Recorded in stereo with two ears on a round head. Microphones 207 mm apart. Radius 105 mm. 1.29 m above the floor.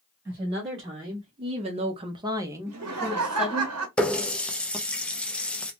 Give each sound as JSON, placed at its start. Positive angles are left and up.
{"t": 0.2, "sound": "a woman speaking", "side_deg": -20, "distance_m": 1.1}
{"t": 2.7, "sound": "laughter", "side_deg": -70, "distance_m": 0.7}
{"t": 4.0, "sound": "a running tap", "side_deg": 5, "distance_m": 0.5}